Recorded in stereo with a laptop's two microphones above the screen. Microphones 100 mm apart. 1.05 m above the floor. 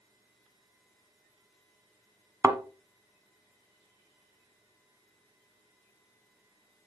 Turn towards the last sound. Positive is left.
turn(degrees=-30)  # may be behind; listen again after turning